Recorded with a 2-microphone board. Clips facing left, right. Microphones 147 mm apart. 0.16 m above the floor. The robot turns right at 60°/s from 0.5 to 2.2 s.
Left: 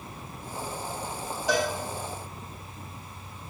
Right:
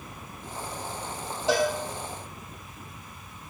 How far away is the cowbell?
About 5 m.